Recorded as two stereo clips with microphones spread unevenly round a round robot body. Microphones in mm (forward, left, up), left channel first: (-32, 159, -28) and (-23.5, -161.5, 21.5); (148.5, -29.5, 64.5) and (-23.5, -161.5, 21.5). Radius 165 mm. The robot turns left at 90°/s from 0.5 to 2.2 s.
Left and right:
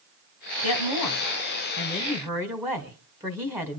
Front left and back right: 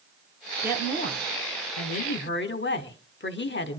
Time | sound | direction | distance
0.6 | a woman speaking | 140° left | 2.5 m